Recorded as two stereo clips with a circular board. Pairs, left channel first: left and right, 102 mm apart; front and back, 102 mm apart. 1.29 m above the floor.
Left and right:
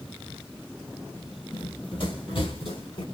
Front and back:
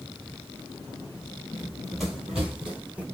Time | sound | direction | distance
1.5 | running footsteps | 80° left | 2 m